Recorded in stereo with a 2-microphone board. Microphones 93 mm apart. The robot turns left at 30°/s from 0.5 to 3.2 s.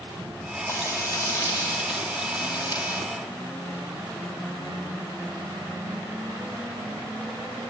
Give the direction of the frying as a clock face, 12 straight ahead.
7 o'clock.